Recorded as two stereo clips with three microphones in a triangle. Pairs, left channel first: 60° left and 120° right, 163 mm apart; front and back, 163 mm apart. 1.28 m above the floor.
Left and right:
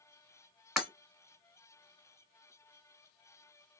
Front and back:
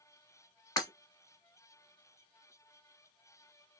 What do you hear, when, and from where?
0.8 s breaking glass: 35° right, 1.3 m